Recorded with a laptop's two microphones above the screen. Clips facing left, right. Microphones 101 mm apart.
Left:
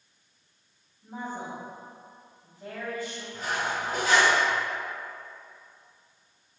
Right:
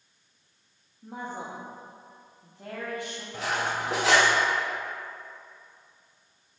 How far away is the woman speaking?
About 1.4 m.